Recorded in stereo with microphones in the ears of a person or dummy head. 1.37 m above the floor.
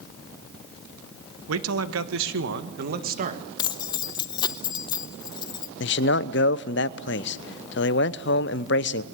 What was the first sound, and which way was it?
A man speaking, 75° right (ahead or behind).